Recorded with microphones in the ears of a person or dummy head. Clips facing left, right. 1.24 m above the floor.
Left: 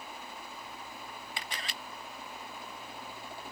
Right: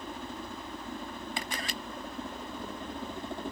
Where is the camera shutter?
45° right (ahead or behind).